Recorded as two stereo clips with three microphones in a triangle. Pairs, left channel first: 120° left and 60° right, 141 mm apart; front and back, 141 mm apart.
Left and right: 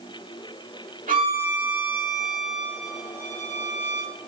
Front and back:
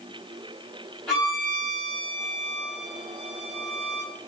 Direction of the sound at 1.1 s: 85° right.